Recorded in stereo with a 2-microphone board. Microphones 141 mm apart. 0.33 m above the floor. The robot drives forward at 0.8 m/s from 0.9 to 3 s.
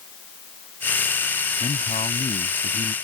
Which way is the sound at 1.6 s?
55° left (ahead or behind).